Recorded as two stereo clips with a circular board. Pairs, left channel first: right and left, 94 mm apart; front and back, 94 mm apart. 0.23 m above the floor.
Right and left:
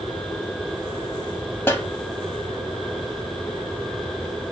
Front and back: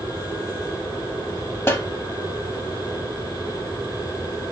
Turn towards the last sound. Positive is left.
turn(degrees=-45)